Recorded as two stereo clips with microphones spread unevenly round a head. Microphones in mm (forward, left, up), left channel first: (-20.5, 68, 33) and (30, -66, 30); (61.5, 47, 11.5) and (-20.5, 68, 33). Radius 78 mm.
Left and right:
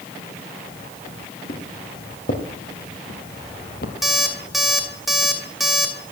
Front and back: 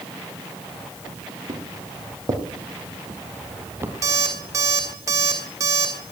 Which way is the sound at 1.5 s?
135° left.